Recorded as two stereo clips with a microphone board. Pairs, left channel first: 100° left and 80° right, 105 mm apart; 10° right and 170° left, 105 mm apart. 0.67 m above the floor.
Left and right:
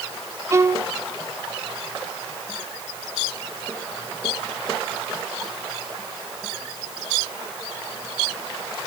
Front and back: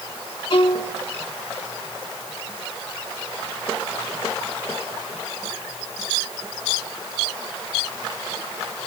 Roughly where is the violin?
Ahead right.